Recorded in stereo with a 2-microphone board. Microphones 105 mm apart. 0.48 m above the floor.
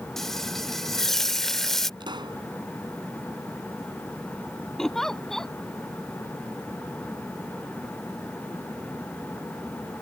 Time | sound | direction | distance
0.2 | frying | 5° left (ahead or behind) | ?
2.0 | a pop | 45° right (ahead or behind) | ?
4.8 | a giggle | 5° left (ahead or behind) | ?